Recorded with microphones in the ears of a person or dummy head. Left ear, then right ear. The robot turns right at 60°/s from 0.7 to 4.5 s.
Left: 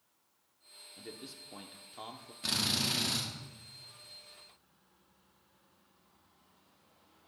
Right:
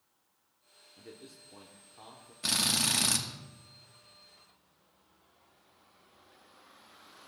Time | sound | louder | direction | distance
1.0 | a man speaking | left 3 dB | 20° left | 0.8 m
2.4 | a drill | right 3 dB | 170° right | 1.2 m